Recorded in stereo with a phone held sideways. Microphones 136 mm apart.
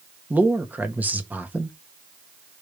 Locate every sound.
0.3 s a man speaking: 15° right (ahead or behind), 1.7 m